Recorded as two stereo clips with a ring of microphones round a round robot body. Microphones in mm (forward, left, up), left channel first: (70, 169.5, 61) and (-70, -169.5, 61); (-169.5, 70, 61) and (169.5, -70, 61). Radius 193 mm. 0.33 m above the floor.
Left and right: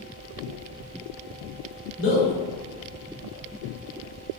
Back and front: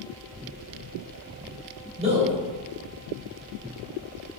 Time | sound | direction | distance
2.0 | a man speaking | 40° left | 1.6 m